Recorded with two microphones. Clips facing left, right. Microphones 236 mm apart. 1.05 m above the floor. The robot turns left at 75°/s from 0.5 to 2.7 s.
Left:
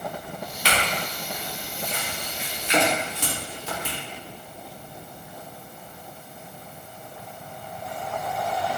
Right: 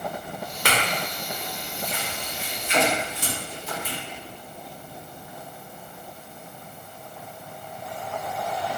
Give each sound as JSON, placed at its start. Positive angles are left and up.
{"t": 0.7, "sound": "a clink", "side_deg": -55, "distance_m": 0.7}